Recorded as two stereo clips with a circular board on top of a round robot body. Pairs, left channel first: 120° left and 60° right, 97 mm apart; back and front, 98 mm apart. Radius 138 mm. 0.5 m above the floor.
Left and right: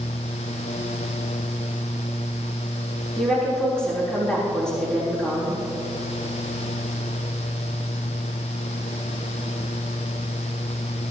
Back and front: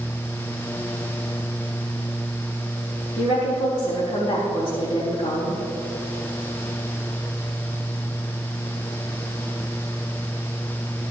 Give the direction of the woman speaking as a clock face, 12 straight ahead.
5 o'clock.